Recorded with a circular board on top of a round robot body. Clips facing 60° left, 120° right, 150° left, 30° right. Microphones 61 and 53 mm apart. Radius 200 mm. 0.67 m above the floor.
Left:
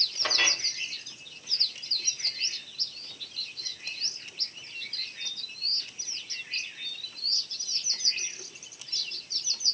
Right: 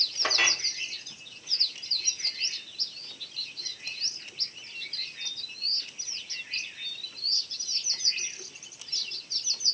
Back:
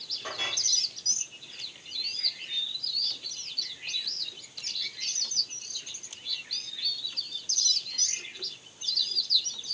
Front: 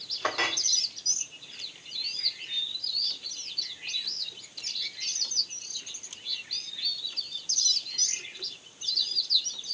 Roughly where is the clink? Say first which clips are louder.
Right 2 dB, front 7 dB; ahead right.